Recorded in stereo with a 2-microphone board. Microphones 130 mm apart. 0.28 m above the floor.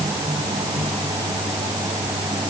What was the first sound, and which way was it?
Only background noise.